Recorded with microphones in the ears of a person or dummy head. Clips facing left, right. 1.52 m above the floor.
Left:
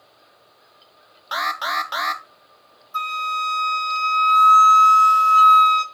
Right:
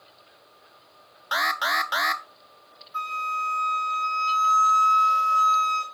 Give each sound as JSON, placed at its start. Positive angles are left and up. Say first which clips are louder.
{"t": 1.3, "sound": "an alarm", "louder": "left 1 dB", "side_deg": -5, "distance_m": 0.6}
{"t": 2.9, "sound": "a flute", "louder": "left 4 dB", "side_deg": 60, "distance_m": 3.0}